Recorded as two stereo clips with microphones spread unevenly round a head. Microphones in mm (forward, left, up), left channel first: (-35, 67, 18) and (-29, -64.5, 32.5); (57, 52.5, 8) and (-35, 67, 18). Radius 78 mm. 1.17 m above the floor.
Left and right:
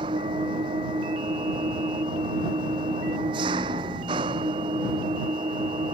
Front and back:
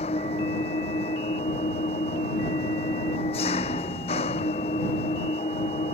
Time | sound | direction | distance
0.0 | an engine running | 30° right | ?